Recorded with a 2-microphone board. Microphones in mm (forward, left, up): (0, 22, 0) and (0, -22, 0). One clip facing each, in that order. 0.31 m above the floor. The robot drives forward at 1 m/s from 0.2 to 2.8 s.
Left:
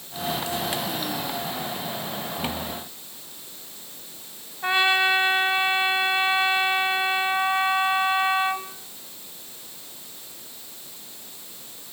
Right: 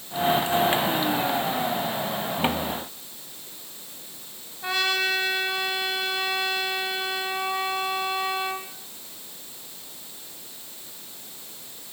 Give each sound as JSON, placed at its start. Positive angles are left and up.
{"t": 4.6, "sound": "a trumpet", "side_deg": 30, "distance_m": 2.0}